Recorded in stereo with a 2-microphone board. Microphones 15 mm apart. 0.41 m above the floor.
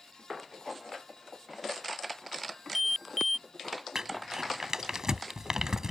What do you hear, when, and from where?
2.5 s an alarm: centre (ahead or behind)
4.0 s crumpling: 45° right (ahead or behind)